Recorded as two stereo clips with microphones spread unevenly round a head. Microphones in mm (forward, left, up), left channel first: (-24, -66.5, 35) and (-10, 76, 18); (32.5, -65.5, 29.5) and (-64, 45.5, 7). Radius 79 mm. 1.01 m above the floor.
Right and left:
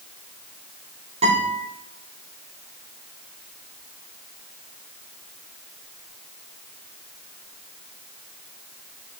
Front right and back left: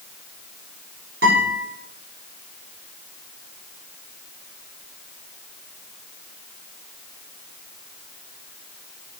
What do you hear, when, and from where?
1.2 s a guitar: 130° left, 3 m